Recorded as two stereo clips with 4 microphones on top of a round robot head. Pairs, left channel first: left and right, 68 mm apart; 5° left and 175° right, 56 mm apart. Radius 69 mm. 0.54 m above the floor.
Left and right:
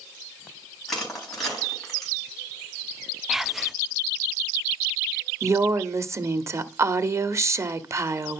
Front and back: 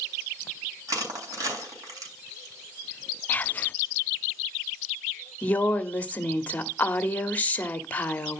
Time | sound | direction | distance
0.9 | crushing | 175° left | 4 m
3.3 | whispering | 10° right | 0.8 m
5.4 | a woman speaking | 55° right | 1.1 m